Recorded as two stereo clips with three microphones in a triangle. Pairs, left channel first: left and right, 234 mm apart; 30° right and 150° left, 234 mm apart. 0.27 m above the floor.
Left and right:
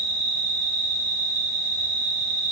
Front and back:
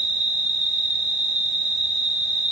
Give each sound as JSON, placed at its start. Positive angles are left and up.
{"t": 0.0, "sound": "an insect", "azimuth_deg": 165, "distance_m": 1.1}